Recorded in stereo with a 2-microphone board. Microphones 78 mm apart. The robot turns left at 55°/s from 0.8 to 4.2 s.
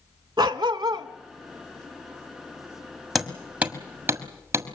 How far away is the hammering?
About 1.5 m.